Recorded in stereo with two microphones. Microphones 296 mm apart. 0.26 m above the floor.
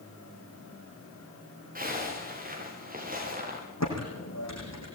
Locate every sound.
1.8 s a zipper: 25° right (ahead or behind), 7.5 m
3.8 s typing on a keyboard: 55° left (ahead or behind), 8 m